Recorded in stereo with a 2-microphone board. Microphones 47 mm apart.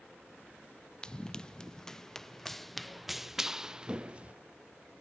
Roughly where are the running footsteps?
Centre.